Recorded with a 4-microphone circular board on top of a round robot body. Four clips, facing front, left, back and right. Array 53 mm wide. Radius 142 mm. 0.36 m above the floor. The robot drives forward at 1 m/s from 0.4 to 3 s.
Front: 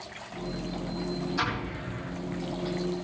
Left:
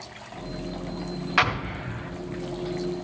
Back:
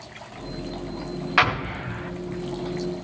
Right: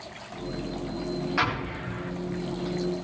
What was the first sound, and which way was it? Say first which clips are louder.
An explosion: left 6 dB, back 9 dB; 155° left.